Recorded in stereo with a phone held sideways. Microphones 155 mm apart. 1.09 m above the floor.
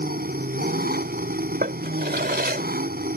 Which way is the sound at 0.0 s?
80° right.